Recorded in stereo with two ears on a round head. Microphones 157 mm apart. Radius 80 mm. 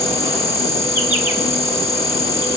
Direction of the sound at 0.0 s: 15° right (ahead or behind).